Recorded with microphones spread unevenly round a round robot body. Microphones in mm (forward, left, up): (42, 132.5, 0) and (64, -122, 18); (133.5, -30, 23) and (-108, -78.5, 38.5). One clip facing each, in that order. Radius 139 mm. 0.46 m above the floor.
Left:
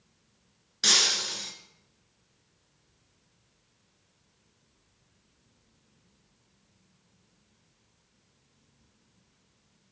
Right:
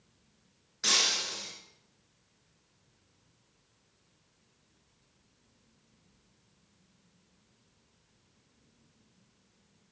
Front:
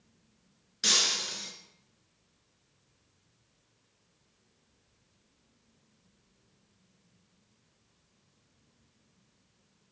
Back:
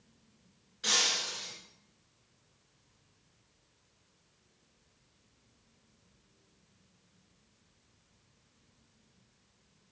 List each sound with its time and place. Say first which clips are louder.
0.8 s breaking glass: left 3 dB, front 2 dB; 55° left, 2.0 m